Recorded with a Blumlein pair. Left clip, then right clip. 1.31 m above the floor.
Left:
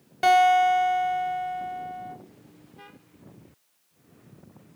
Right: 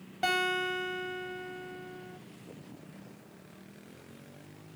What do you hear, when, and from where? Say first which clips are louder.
0.2 s a guitar: left 12 dB; 15° left, 1.0 m